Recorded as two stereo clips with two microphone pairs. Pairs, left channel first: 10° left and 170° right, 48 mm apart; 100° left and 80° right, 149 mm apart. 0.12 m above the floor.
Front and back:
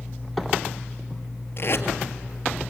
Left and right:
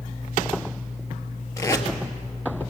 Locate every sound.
1.6 s tape being pulled: 35° left, 1.6 m